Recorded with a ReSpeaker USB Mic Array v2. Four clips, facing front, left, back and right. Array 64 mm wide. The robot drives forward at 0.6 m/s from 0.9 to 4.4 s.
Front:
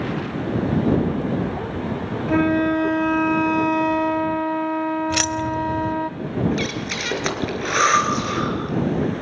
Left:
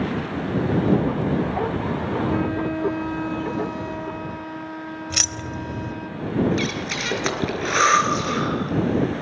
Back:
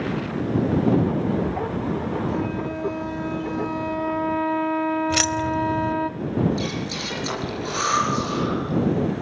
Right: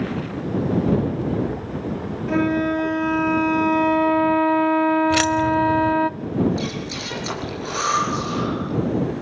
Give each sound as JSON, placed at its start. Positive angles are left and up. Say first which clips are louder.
{"t": 2.3, "sound": "a flute", "louder": "right 3 dB, front 8 dB", "azimuth_deg": -25, "distance_m": 1.4}
{"t": 5.1, "sound": "keys jangling", "louder": "right 13 dB, even", "azimuth_deg": -90, "distance_m": 0.7}
{"t": 6.5, "sound": "breathing", "louder": "left 2 dB, front 2 dB", "azimuth_deg": 45, "distance_m": 4.0}